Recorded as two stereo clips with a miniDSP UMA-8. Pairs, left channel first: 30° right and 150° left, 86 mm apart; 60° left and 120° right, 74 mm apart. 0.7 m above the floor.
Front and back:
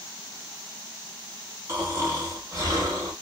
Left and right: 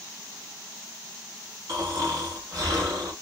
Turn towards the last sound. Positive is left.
turn(degrees=-155)